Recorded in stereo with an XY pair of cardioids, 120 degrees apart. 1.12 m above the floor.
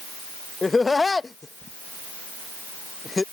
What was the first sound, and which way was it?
Laughter, 20° left.